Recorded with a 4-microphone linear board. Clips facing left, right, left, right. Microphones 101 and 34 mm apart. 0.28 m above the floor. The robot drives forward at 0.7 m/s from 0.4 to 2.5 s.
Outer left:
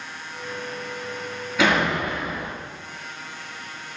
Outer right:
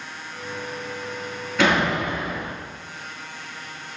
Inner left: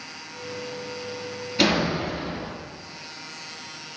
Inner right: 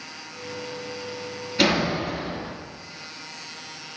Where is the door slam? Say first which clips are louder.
Outer right 1 dB, even; 5° left (ahead or behind), 1.7 m.